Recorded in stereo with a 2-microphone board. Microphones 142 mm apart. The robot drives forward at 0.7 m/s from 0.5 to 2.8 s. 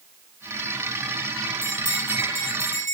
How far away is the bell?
About 3.5 m.